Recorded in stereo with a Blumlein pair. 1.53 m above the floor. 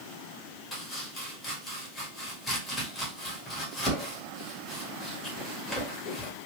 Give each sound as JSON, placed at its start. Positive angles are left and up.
{"t": 0.7, "sound": "chopping", "azimuth_deg": 5, "distance_m": 1.8}